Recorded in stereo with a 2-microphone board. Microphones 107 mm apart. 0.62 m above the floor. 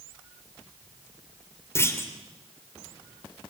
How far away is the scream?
No scream in this recording.